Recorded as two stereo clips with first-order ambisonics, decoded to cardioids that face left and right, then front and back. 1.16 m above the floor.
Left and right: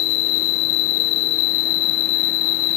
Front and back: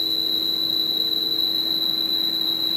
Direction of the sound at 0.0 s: 85° left.